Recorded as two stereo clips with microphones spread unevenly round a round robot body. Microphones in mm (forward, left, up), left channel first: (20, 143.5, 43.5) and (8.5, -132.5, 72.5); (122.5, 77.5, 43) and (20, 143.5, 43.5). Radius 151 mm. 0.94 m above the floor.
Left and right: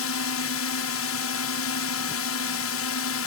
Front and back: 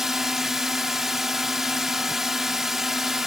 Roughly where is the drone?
Ahead left.